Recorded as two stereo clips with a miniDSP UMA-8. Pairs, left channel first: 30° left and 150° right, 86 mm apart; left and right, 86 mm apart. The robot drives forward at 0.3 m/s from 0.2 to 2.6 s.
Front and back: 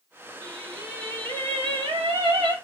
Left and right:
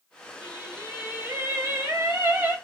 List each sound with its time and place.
0.4 s singing: 140° right, 1.6 m; by 2.5 s 150° right, 2 m